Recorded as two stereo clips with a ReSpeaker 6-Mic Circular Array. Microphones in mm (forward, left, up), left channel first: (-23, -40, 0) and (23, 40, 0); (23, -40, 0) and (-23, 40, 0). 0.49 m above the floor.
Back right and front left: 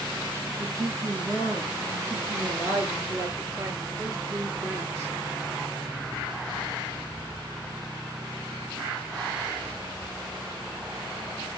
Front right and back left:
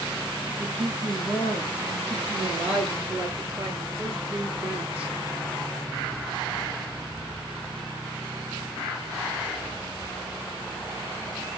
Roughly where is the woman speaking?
Left.